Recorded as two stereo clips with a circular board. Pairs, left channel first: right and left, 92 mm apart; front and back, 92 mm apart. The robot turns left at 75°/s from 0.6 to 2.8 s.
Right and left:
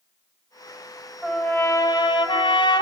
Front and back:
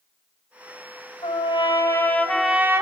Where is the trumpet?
5° left, 2.5 m; by 2.8 s 115° right, 2.5 m.